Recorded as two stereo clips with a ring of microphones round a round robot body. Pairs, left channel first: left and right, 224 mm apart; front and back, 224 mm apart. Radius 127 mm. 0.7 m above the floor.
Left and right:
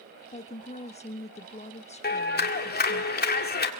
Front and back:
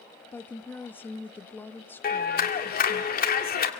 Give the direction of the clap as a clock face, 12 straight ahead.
10 o'clock.